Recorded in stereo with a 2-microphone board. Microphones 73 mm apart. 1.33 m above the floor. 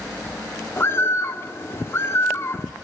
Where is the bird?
35° left (ahead or behind), 1.7 m.